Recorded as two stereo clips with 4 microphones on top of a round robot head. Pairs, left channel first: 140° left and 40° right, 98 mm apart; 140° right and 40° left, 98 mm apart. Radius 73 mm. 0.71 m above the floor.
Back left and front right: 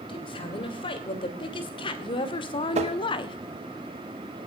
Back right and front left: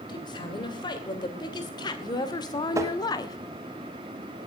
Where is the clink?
No clink in this recording.